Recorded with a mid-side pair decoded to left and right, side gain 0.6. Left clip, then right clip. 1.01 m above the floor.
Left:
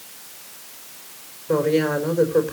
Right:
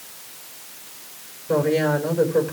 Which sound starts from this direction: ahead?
A woman speaking, at 1.5 s.